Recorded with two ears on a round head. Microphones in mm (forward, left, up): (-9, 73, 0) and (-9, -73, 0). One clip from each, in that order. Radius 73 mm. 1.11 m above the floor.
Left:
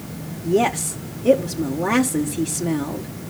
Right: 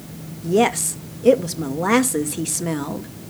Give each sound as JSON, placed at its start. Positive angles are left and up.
{"t": 0.4, "sound": "a woman speaking", "side_deg": -30, "distance_m": 0.9}